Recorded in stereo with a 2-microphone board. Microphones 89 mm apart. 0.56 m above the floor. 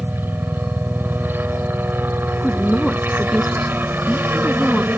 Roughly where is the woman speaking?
Centre.